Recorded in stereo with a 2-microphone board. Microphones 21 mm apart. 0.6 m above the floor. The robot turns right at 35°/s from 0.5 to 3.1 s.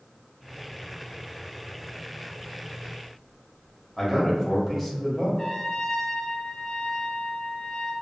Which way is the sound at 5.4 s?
30° left (ahead or behind).